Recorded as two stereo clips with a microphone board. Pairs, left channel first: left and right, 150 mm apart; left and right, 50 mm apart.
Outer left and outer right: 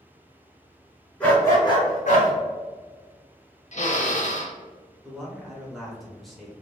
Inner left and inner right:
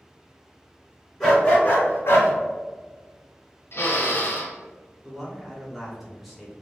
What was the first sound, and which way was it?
A dog barking, 5° left (ahead or behind).